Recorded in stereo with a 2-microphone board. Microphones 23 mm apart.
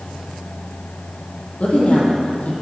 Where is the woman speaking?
55° left (ahead or behind), 6 m.